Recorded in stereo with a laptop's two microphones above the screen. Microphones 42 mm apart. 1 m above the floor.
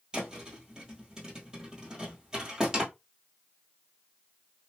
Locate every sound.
0.1 s a thud: 15° right (ahead or behind), 1.3 m